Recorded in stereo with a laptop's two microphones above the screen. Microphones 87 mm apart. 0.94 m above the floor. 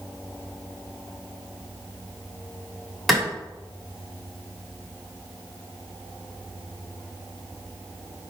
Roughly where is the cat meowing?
No cat meowing in this recording.